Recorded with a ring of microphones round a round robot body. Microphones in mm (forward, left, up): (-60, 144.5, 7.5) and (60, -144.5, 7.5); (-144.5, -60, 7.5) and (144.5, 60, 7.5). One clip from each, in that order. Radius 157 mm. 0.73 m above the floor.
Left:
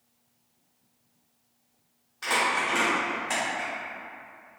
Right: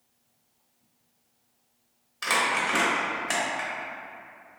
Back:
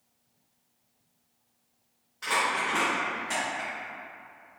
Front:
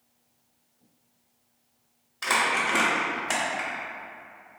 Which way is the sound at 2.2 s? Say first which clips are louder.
Right 1 dB, front 3 dB; 30° right.